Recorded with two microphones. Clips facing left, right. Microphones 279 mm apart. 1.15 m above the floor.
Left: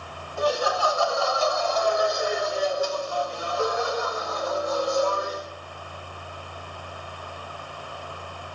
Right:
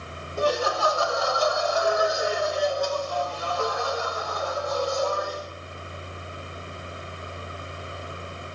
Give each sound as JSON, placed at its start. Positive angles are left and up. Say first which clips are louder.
{"t": 0.4, "sound": "laughter", "louder": "even", "side_deg": -35, "distance_m": 4.0}